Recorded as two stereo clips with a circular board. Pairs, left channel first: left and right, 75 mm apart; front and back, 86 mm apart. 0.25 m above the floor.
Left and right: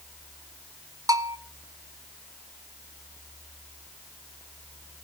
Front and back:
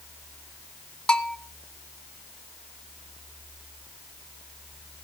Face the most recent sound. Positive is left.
turn(degrees=-80)